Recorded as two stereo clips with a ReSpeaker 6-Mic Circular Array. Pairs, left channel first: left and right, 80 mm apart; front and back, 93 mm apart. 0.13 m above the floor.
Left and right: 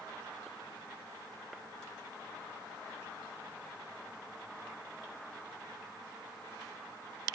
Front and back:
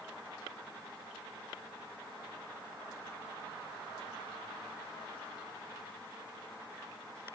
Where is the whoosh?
No whoosh in this recording.